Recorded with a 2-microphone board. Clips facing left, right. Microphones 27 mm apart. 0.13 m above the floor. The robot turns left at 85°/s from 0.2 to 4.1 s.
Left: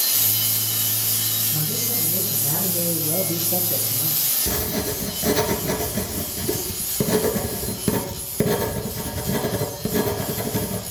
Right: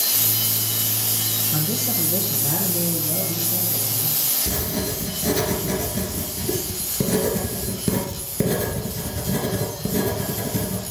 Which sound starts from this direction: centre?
Writing, at 4.5 s.